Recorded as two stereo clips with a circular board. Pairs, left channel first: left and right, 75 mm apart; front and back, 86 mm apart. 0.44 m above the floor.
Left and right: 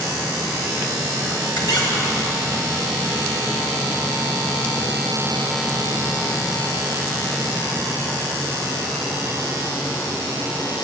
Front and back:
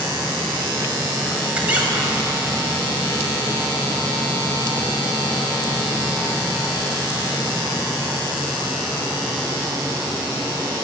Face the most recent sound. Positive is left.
turn(degrees=105)